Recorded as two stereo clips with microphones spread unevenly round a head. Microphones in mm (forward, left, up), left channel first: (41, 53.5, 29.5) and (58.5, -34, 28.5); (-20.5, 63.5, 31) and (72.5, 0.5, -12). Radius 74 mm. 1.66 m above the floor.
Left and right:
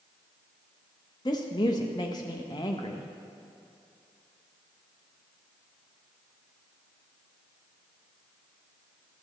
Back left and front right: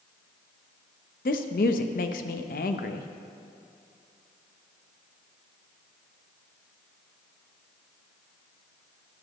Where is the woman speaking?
165° left, 0.5 m.